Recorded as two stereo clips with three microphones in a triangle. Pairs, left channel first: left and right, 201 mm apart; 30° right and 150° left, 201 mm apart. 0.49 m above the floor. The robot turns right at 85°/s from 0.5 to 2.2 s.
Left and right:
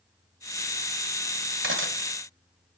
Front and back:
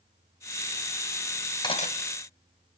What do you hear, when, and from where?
1.6 s cutlery clinking: 100° right, 2 m; by 1.9 s 70° right, 2 m